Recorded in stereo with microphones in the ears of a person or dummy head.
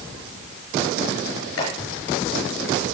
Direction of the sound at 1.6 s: 75° left (ahead or behind).